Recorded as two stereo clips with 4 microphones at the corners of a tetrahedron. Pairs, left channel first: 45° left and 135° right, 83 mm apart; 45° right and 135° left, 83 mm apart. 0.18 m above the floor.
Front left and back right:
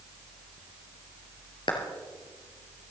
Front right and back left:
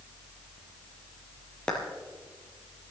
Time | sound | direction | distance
1.7 | a clap | 35° left | 2.5 m